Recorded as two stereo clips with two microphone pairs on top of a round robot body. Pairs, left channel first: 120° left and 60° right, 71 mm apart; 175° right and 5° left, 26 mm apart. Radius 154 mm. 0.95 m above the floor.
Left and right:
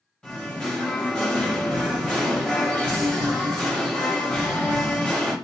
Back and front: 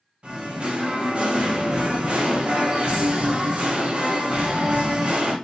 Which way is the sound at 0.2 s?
45° left.